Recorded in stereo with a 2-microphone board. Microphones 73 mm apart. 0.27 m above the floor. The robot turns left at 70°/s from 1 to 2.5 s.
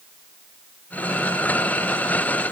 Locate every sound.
Only background noise.